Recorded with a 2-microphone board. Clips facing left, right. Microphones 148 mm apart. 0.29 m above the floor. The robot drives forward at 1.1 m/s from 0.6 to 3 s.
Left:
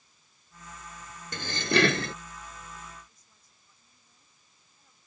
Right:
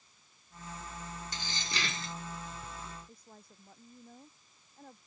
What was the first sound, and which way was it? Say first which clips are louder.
Dishes clattering: left 17 dB; 60° left (ahead or behind).